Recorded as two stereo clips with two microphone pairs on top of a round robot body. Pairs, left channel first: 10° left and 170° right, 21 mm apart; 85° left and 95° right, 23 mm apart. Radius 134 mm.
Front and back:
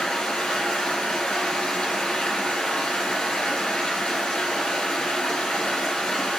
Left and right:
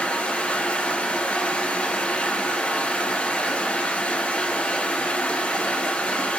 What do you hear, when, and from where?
0.0 s running water: 50° left, 3 m